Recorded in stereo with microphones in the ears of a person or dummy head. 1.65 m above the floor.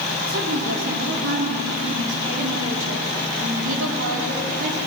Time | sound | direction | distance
0.3 | a woman speaking | 65° right (ahead or behind) | 5 m